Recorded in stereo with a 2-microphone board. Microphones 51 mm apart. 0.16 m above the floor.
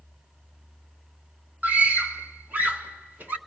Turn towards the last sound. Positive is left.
turn(degrees=-35)  # may be behind; listen again after turning